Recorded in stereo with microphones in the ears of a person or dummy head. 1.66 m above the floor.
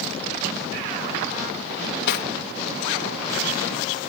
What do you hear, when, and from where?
1.8 s cutlery clinking: 60° left (ahead or behind)